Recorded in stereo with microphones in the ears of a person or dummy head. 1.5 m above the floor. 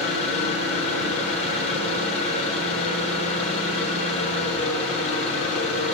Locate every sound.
0.0 s an engine running: 35° left (ahead or behind), 1.3 m